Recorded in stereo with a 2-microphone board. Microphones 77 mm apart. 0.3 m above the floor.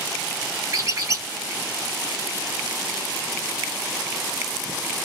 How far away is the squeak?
About 0.6 m.